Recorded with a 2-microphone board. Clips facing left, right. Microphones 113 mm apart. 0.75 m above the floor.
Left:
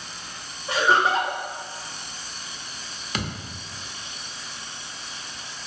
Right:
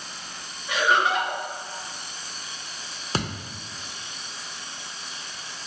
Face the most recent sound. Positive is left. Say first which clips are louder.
# right 2 dB
turn(degrees=-35)  # may be behind; listen again after turning